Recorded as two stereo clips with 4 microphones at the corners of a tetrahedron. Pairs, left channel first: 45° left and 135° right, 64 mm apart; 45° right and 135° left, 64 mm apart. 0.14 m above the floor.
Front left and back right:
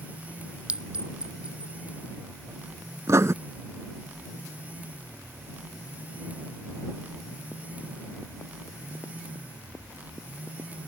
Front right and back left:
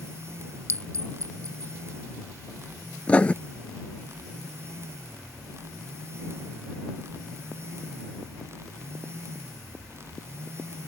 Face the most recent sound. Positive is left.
turn(degrees=-110)